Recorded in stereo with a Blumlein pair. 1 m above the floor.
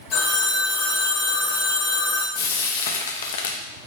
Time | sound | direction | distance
0.1 | a phone ringing | 35° left | 1.2 m
2.4 | frying | 60° left | 0.6 m